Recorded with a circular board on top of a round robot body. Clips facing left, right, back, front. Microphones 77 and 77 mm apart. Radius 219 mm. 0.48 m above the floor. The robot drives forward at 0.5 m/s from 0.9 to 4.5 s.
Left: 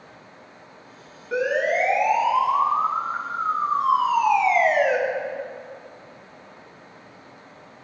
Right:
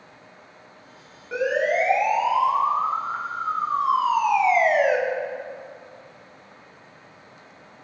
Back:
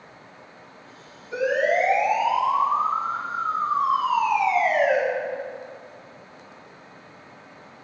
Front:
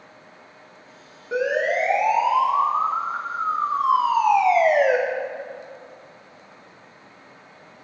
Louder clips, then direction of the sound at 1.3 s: Even, even; straight ahead.